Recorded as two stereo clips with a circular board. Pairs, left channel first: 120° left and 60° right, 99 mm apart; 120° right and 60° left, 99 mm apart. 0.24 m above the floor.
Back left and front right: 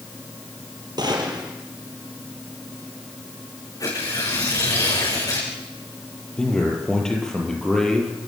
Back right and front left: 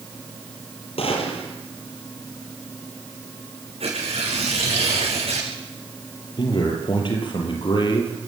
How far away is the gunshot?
About 4.5 m.